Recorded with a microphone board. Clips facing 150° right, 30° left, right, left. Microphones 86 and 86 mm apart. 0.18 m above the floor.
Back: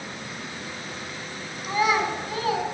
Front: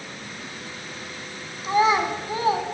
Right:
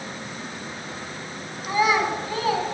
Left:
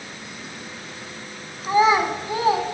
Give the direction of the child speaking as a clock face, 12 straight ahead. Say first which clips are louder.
Front 3 dB, left 4 dB; 10 o'clock.